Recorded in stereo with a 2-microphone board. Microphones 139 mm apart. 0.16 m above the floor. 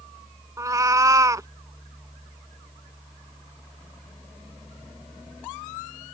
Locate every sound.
0.6 s a cat meowing: 25° right (ahead or behind)